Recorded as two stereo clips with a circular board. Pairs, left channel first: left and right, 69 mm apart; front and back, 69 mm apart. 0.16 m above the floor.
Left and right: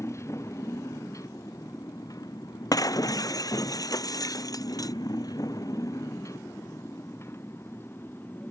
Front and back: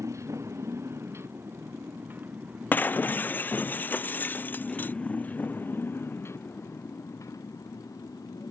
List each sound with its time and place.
0.0 s a motorcycle: 135° left; by 8.5 s 30° left
2.7 s breaking glass: 65° left